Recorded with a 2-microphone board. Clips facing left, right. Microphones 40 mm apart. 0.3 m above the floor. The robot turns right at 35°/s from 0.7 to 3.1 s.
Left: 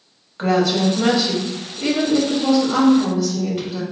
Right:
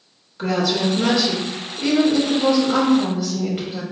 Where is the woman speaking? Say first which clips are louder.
Left 3 dB; 125° left, 1.1 m; by 3.8 s 150° right, 1.1 m.